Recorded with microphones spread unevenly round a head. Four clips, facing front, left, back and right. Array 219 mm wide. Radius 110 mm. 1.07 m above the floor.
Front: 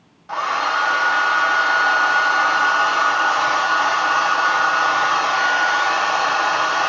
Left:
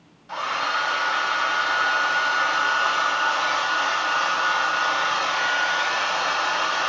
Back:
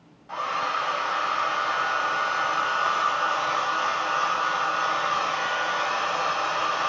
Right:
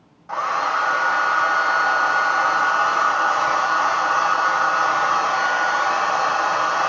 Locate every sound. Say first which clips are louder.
0.3 s a hair dryer: right 4 dB, front 7 dB; 30° right, 1.0 m